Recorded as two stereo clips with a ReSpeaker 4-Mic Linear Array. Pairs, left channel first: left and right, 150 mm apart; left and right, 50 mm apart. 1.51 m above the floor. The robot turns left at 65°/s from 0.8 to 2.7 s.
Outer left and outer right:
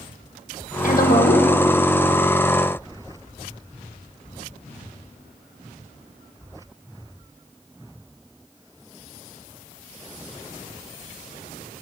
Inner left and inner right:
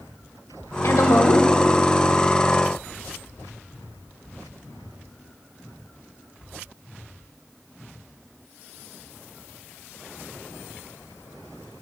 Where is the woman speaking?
115° left, 1.3 m; by 1.5 s 70° left, 1.3 m.